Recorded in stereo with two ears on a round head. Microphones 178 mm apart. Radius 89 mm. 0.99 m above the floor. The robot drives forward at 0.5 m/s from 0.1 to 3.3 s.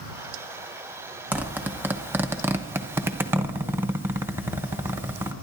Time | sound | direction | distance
1.3 | a zipper | 10° right (ahead or behind) | 1.1 m